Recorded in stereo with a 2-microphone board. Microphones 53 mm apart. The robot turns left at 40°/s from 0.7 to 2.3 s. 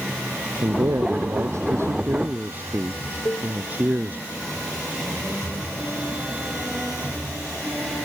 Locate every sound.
0.6 s a man speaking: 80° right; by 4.2 s 145° right
3.2 s a cowbell: 65° left (ahead or behind)